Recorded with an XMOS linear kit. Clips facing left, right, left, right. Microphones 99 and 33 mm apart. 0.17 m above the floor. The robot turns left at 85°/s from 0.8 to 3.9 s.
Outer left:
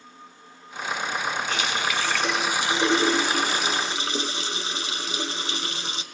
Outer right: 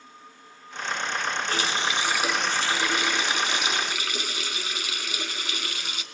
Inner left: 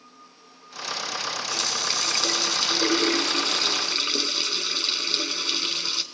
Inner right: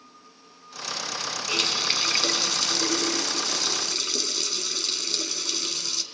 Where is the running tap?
105° right, 0.9 m; by 6.0 s 50° left, 0.9 m.